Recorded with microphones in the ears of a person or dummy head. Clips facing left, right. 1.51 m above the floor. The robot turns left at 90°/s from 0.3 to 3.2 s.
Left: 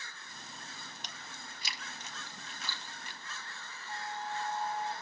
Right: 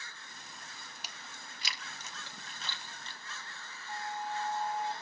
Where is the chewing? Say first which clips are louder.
Left 2 dB; 5° right (ahead or behind), 0.9 m; by 3.2 s 20° left (ahead or behind), 0.9 m.